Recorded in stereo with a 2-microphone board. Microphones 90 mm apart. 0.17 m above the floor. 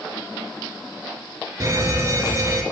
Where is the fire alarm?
35° right (ahead or behind), 3.5 m.